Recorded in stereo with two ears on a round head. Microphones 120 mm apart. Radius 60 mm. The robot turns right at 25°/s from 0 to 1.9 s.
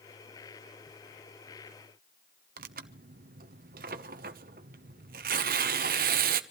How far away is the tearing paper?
About 1.0 m.